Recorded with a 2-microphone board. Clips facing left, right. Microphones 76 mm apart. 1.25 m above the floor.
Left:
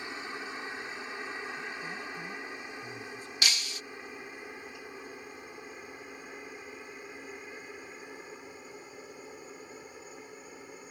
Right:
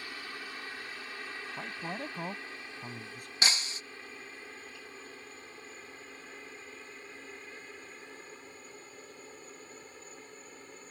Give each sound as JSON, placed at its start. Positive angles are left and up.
{"t": 0.0, "sound": "a helicopter", "side_deg": 20}
{"t": 1.6, "sound": "a man speaking", "side_deg": -60}
{"t": 3.4, "sound": "breaking glass", "side_deg": -30}